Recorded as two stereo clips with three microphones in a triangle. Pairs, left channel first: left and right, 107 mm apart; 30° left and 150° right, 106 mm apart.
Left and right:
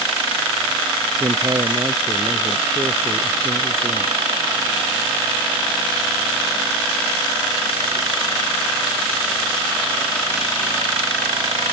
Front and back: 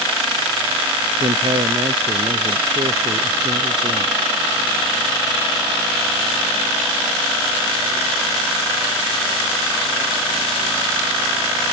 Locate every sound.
1.2 s a man speaking: 145° right